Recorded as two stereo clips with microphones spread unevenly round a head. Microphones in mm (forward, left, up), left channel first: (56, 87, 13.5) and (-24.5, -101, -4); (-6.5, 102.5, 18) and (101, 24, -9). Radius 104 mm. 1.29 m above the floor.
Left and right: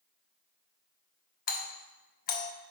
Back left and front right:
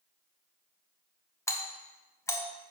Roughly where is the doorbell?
Left.